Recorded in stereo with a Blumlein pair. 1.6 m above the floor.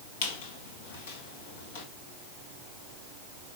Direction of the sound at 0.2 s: 55° left.